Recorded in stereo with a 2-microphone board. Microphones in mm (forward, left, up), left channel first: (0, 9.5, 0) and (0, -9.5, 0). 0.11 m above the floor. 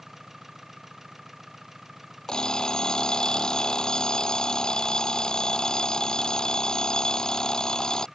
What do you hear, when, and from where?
0.0 s an engine running: 20° right (ahead or behind)
2.3 s an alarm clock: 50° left (ahead or behind)